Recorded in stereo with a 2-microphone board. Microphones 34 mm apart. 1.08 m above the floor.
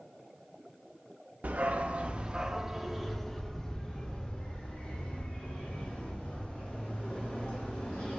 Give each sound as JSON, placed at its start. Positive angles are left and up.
{"t": 1.4, "sound": "a dog barking", "side_deg": -50, "distance_m": 0.8}